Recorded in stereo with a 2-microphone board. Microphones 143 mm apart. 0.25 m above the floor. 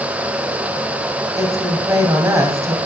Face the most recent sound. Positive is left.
turn(degrees=-20)  # may be behind; listen again after turning